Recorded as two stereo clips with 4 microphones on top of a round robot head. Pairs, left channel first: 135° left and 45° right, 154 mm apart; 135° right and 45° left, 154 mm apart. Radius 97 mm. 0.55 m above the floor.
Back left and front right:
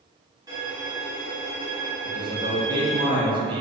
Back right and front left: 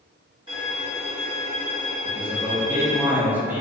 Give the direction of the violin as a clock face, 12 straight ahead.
12 o'clock.